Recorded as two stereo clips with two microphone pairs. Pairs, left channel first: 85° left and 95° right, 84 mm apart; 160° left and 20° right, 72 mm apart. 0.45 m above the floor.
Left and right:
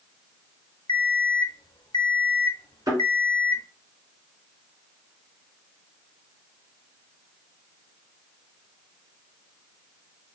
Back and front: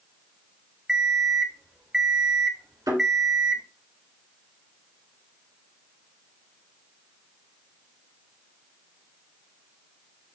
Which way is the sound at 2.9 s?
45° right.